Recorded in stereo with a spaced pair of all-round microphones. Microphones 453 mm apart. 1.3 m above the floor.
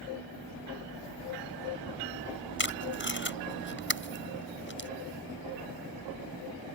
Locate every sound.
2.6 s tape being pulled: 25° left (ahead or behind)